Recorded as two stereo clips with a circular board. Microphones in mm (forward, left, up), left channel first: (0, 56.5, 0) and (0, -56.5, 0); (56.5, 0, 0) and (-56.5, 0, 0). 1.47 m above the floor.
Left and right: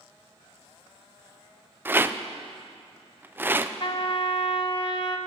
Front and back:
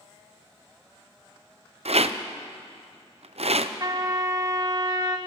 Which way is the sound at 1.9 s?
160° right.